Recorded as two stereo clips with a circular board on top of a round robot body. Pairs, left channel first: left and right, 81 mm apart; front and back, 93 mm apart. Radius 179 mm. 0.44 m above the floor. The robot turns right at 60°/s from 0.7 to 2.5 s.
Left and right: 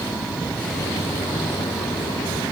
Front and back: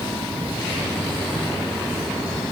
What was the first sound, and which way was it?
Only background noise.